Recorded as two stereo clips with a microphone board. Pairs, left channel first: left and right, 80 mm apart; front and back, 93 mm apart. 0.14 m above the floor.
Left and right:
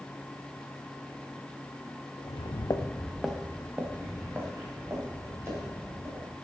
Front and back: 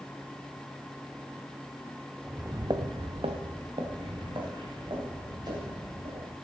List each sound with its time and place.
2.2 s footsteps: 90° left, 0.8 m; by 6.3 s 145° right, 4 m